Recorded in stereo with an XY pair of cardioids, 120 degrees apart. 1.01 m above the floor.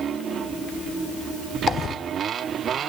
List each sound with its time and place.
1.7 s a dropped coin: 45° left, 1.2 m